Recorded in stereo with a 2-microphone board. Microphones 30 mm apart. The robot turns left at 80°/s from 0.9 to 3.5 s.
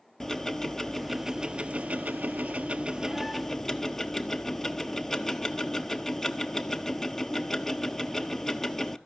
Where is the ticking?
10° left, 0.5 m; by 9.0 s 160° left, 0.5 m.